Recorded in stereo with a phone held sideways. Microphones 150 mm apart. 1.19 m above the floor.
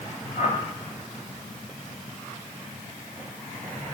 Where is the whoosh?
55° left (ahead or behind), 6.5 m.